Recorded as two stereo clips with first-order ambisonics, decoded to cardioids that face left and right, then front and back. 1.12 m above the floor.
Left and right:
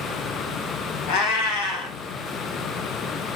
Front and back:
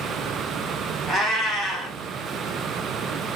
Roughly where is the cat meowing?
Left.